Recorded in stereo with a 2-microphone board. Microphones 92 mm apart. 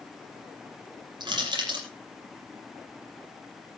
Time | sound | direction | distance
1.2 | crushing | 55° right (ahead or behind) | 6.5 m